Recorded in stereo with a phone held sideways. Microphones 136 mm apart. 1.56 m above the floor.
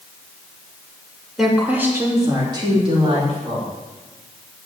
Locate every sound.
1.4 s a woman speaking: centre (ahead or behind), 2.5 m; by 3.7 s 50° right (ahead or behind), 4.5 m